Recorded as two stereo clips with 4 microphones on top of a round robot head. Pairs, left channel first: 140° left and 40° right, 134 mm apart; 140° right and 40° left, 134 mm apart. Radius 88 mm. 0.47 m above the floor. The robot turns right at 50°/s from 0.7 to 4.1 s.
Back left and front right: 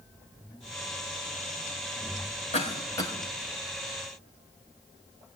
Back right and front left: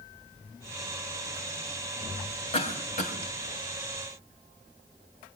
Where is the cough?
Straight behind, 4 m; by 3.1 s 150° right, 4 m.